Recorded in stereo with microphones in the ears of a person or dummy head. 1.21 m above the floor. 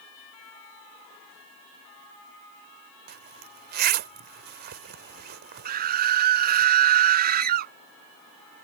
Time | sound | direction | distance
3.1 | a zipper | 50° right (ahead or behind) | ?
5.7 | a scream | 45° right (ahead or behind) | ?